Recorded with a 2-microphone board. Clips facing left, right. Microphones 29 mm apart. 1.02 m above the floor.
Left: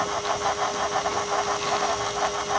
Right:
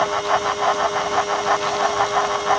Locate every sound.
Only background noise.